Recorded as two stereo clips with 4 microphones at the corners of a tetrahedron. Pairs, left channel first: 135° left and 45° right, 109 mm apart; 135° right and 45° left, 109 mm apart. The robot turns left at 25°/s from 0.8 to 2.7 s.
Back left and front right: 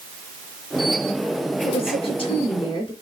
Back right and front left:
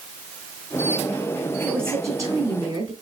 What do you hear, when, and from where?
1.6 s a woman speaking: 115° left, 3.5 m; by 2.9 s 90° left, 3.5 m